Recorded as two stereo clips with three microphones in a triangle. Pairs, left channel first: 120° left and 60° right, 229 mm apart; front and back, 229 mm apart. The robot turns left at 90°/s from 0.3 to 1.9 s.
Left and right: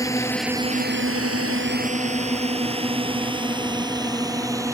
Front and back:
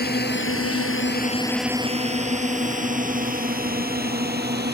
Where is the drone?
45° left; by 4.7 s 135° right.